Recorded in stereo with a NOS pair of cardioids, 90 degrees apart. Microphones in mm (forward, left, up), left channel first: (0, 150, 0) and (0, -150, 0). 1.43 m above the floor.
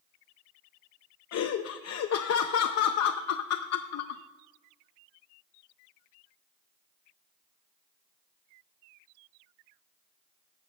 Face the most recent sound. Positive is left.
turn(degrees=60)